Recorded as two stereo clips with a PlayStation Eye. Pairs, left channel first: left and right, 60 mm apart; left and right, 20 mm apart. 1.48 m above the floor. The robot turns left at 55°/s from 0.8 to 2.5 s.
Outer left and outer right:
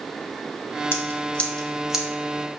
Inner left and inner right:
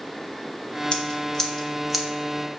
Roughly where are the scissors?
Left.